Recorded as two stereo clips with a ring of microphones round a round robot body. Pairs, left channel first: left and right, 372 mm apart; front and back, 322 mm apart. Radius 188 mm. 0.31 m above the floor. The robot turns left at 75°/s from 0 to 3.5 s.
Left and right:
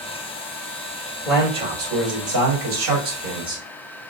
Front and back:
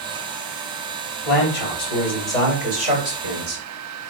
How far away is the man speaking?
About 2 m.